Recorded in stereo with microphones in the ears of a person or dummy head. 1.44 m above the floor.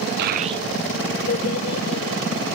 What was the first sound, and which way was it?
A child speaking, 50° right (ahead or behind).